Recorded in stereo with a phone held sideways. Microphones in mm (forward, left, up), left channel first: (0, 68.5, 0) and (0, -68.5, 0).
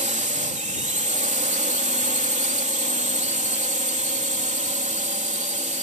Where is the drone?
60° right (ahead or behind).